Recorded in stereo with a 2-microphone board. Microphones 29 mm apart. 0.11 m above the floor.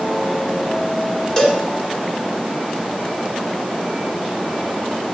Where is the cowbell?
20° left (ahead or behind), 1.7 m.